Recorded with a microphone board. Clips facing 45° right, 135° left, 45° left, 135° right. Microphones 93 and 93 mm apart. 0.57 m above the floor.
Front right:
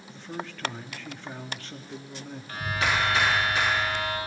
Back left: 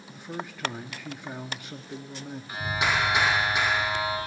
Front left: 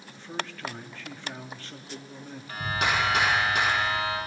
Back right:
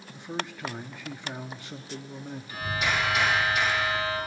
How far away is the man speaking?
About 0.7 m.